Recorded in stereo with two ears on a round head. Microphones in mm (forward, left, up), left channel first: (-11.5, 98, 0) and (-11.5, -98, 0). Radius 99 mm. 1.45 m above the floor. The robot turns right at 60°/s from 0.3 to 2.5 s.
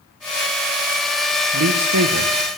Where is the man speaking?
115° right, 0.9 m; by 2.3 s 65° right, 0.9 m.